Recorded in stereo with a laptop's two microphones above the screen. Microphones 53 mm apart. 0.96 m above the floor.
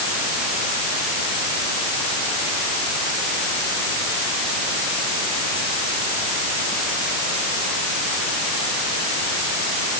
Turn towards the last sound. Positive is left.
No sound to turn to.